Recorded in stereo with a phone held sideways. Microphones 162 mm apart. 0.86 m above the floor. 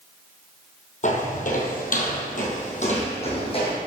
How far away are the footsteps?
About 1.7 m.